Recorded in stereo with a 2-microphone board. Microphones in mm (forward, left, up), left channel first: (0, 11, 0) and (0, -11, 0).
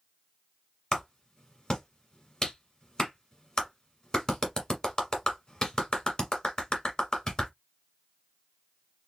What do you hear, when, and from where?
0.9 s a clap: 35° left (ahead or behind), 1.4 m